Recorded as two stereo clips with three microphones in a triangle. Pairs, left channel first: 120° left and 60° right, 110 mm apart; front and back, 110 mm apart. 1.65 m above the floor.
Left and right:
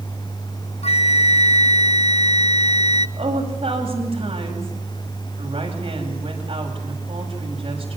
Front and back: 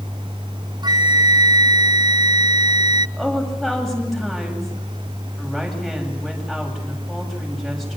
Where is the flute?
135° left, 0.5 m.